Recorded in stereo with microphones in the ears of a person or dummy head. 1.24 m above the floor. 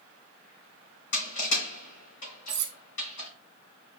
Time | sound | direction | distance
1.1 | crushing | 65° left (ahead or behind) | 3.5 m
2.5 | cutlery clinking | 55° right (ahead or behind) | 1.1 m